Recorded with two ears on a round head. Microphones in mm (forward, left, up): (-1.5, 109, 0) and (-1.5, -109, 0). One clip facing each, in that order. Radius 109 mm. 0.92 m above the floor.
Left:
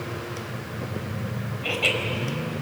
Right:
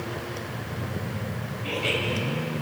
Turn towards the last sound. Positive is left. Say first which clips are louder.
# left 1 dB
turn(degrees=75)  # may be behind; listen again after turning